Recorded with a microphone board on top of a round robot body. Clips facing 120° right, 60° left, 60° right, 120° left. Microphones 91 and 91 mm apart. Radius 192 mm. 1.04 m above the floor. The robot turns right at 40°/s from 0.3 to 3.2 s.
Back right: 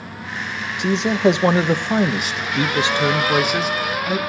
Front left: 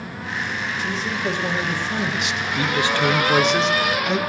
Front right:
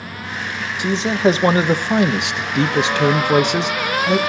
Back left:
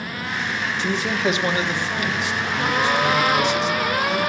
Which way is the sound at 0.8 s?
135° right.